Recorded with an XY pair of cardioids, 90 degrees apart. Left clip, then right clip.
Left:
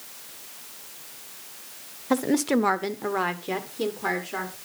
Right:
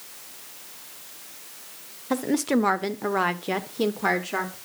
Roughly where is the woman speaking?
Ahead.